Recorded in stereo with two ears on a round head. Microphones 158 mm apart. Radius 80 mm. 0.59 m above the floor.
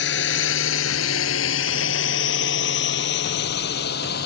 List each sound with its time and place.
0.0 s a drone: 65° left (ahead or behind); by 4.3 s 60° left (ahead or behind)